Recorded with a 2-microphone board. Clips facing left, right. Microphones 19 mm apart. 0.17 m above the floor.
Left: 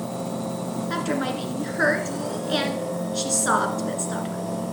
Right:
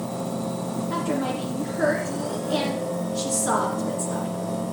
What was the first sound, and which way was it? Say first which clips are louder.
A woman speaking: even; 55° left (ahead or behind).